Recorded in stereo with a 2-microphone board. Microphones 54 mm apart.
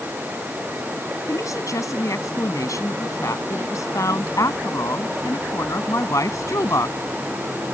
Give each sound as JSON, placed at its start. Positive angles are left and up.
{"t": 1.3, "sound": "a woman speaking", "side_deg": 85}